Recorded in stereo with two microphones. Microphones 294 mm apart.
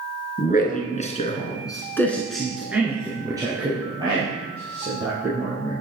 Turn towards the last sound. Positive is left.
turn(degrees=-20)  # may be behind; listen again after turning